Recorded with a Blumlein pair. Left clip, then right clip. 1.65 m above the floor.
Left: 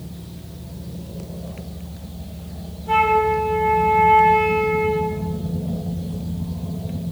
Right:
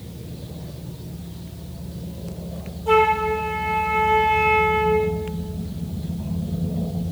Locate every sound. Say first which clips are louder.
2.9 s a flute: left 1 dB; 30° right, 7.5 m